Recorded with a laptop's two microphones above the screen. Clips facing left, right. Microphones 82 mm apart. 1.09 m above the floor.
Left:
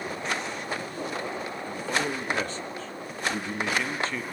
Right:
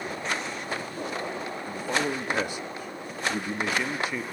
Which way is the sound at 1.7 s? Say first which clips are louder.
Right 1 dB; 15° right (ahead or behind).